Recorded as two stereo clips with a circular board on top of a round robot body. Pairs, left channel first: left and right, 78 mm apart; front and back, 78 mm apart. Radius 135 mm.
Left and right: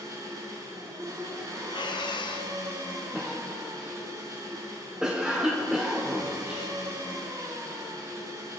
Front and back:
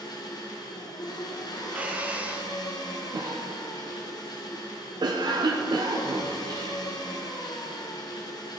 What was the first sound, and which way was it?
An engine running, 40° right.